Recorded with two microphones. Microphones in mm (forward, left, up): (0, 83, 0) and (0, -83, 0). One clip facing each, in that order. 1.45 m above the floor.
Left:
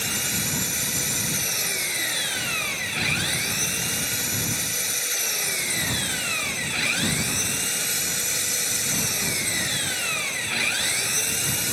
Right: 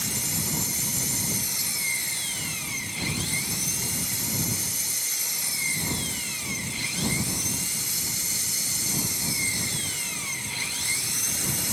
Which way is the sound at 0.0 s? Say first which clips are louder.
Left 2 dB; 75° left (ahead or behind).